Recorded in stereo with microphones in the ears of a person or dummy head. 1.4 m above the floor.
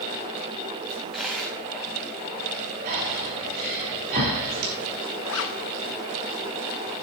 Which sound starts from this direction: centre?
A dropped coin, at 0.9 s.